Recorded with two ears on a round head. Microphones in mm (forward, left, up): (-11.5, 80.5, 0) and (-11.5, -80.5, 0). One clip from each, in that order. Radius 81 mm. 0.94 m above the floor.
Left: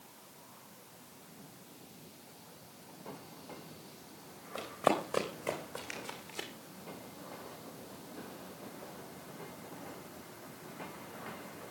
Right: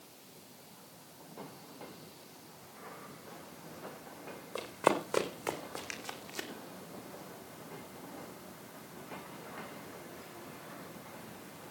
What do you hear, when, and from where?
4.5 s running footsteps: 25° right (ahead or behind), 3.5 m; by 6.5 s 35° right (ahead or behind), 2.5 m